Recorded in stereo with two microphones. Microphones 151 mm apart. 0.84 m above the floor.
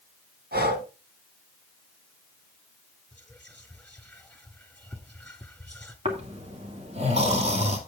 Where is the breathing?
80° right, 2 m.